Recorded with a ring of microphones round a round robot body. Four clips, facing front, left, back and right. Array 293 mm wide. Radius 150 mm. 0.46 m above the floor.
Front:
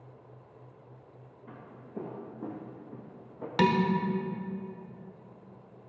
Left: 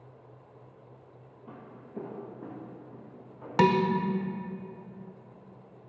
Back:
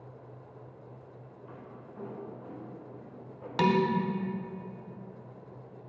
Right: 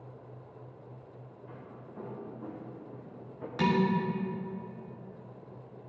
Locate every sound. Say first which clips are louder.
1.5 s footsteps: left 3 dB, front 1 dB; 65° left, 2 m; by 3.5 s 25° right, 2.5 m
3.6 s dishes clattering: left 5 dB, even; 75° left, 1.1 m